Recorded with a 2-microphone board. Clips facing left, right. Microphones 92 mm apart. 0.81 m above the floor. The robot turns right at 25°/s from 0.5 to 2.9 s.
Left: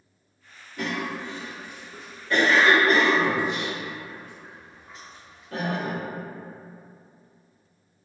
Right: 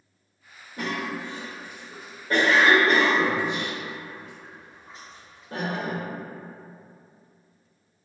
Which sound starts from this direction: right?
A cough, at 0.8 s.